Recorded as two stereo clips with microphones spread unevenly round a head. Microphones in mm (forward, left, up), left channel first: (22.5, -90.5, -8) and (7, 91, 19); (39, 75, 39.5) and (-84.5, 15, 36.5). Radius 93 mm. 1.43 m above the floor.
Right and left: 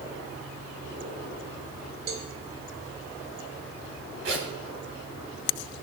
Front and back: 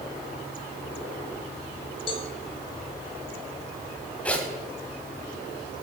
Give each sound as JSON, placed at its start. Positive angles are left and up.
{"t": 2.1, "sound": "a cowbell", "azimuth_deg": 70, "distance_m": 2.0}
{"t": 4.2, "sound": "a zipper", "azimuth_deg": 105, "distance_m": 3.0}